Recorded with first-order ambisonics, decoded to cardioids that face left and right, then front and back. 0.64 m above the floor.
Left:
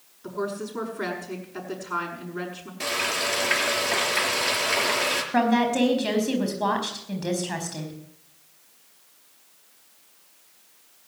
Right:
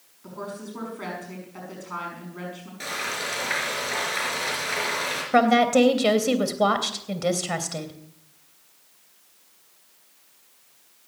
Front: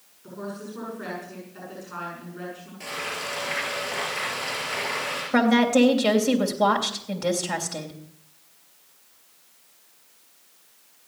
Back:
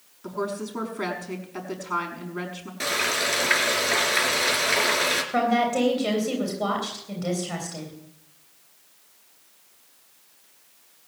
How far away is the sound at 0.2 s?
About 5.5 m.